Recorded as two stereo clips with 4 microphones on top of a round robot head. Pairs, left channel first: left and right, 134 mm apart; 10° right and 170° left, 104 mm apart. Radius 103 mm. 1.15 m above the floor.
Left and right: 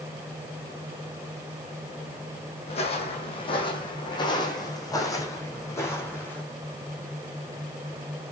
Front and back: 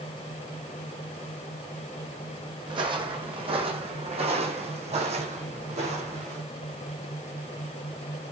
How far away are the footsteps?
About 3 m.